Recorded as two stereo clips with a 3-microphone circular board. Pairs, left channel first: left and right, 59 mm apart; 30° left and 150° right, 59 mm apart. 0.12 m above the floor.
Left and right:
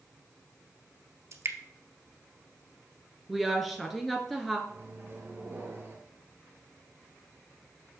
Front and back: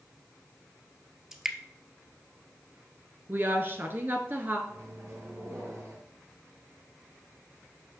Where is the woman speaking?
Straight behind, 1.6 m.